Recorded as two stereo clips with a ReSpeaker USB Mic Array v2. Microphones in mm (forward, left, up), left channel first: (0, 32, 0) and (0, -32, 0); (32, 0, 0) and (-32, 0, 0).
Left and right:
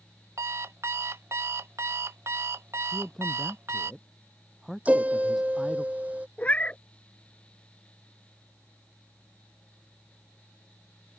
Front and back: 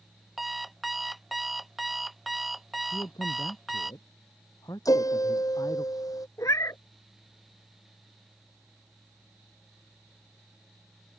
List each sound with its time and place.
0.4 s an alarm clock: 90° right
2.9 s a man speaking: straight ahead
4.8 s a piano: 25° right
6.4 s a cat meowing: 25° left